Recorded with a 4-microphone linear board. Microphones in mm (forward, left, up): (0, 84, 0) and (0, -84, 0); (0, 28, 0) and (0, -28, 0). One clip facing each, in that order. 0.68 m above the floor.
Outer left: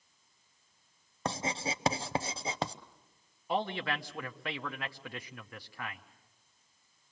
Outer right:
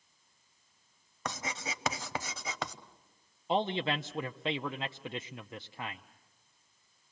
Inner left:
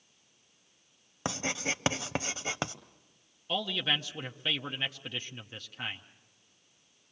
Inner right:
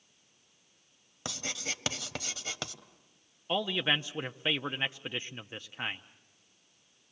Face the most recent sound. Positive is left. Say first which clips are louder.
# outer right 3 dB, inner right 2 dB
turn(degrees=-20)  # may be behind; listen again after turning